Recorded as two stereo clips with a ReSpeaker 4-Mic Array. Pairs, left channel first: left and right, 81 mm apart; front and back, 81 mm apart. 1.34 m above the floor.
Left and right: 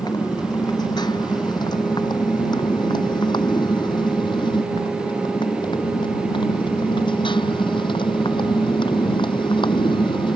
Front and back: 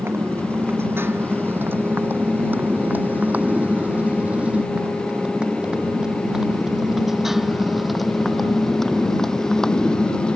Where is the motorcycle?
120° left; by 10.4 s 80° left.